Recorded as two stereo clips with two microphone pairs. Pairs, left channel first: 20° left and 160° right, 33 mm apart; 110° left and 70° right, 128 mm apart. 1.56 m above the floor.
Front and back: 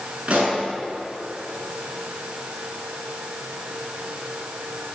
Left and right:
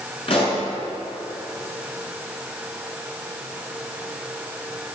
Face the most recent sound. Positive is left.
turn(degrees=150)